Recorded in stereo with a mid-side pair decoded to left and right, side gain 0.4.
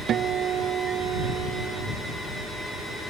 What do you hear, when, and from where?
0.1 s a guitar: 65° right